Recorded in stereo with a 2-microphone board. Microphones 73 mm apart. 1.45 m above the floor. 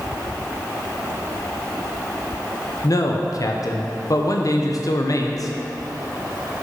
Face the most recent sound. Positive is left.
turn(degrees=55)  # may be behind; listen again after turning